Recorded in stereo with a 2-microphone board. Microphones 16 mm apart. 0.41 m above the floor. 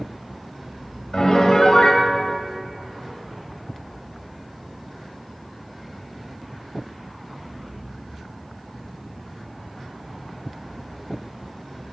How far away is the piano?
About 1.7 m.